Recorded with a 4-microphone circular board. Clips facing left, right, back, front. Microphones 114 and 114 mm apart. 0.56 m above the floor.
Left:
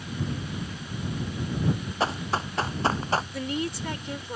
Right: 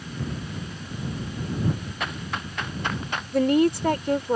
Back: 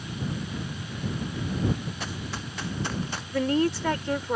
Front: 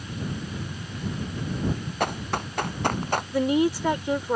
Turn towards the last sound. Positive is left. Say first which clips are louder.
# right 11 dB, front 1 dB
turn(degrees=-75)